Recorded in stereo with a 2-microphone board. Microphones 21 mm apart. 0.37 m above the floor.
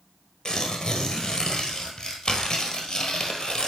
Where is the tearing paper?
35° left (ahead or behind), 1.5 m.